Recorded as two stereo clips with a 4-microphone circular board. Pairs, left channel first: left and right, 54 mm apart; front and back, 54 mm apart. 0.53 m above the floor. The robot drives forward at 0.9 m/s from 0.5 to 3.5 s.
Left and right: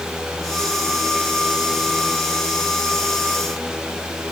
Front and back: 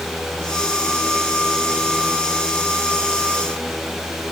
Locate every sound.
Only background noise.